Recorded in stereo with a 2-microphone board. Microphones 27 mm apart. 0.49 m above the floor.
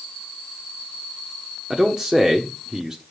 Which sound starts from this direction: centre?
A man speaking, at 1.7 s.